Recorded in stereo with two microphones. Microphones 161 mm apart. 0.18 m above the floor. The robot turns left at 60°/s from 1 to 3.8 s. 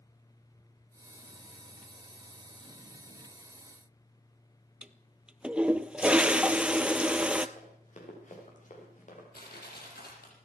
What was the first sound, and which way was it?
A toilet flushing, 5° right (ahead or behind).